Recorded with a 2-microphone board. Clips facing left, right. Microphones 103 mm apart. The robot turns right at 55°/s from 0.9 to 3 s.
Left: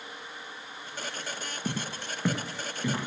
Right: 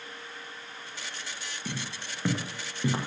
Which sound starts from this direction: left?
Footsteps, at 1.6 s.